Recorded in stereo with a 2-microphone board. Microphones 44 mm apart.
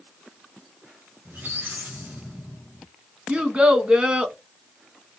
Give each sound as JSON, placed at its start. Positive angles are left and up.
{"t": 1.2, "sound": "a squeak", "side_deg": -50, "distance_m": 1.7}
{"t": 3.3, "sound": "a child speaking", "side_deg": -25, "distance_m": 0.6}